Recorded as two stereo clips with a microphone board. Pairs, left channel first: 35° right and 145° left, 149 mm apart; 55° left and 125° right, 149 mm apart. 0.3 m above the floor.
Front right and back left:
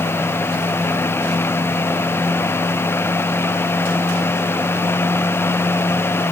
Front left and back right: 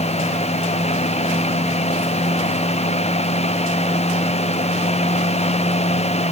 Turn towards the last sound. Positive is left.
No sound to turn to.